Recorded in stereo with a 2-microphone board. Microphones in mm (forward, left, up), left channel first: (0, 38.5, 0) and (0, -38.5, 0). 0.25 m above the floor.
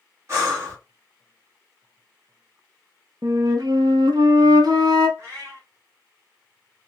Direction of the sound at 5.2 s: 40° right (ahead or behind).